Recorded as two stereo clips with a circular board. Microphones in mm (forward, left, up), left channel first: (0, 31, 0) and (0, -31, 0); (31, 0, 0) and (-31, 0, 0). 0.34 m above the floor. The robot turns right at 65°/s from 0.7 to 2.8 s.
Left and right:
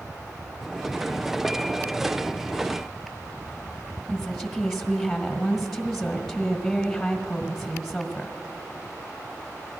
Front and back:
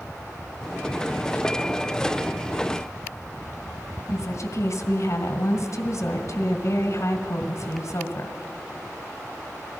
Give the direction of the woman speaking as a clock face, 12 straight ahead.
12 o'clock.